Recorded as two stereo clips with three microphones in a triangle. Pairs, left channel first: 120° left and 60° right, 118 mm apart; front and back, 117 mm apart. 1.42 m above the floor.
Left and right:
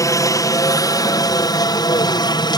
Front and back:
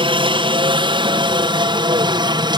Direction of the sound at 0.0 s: 170° left.